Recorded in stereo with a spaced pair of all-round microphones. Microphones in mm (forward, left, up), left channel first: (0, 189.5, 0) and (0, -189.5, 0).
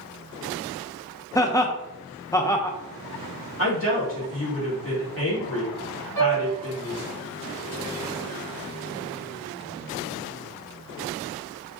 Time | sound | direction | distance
1.4 | laughter | 10° left (ahead or behind) | 0.5 m
3.6 | a woman speaking | 35° left (ahead or behind) | 2.0 m
6.2 | a piano | 50° left (ahead or behind) | 1.5 m